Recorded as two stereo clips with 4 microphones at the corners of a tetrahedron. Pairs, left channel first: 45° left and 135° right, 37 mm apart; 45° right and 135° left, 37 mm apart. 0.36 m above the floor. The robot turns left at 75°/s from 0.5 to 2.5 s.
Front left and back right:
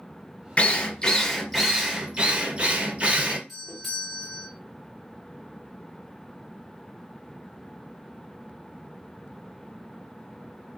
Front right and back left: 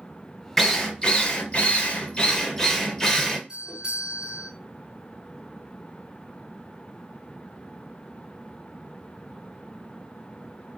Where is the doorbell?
140° left, 1.2 m.